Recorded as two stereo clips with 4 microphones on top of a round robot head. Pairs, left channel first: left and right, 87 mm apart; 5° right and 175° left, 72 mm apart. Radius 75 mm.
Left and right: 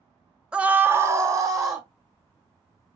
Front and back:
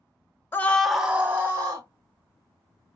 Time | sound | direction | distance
0.5 | a scream | 20° right | 0.7 m